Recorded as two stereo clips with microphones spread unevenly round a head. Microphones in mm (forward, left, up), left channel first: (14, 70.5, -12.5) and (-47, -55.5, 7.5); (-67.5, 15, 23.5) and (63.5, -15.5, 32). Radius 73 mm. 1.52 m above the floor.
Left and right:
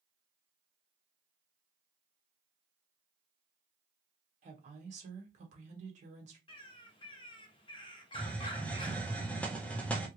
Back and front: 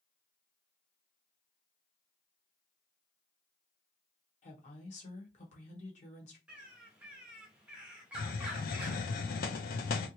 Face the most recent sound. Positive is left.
turn(degrees=145)